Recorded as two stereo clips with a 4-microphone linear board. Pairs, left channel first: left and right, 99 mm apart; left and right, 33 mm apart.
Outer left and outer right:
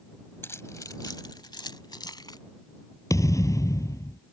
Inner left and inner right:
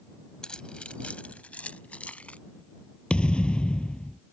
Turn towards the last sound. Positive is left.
turn(degrees=35)  # may be behind; listen again after turning